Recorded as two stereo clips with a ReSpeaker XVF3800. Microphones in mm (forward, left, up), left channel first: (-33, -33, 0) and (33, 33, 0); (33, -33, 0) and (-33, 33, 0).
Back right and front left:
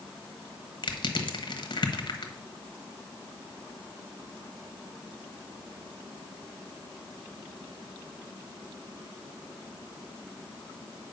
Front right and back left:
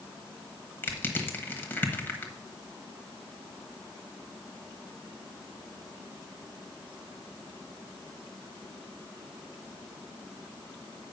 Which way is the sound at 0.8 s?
115° right.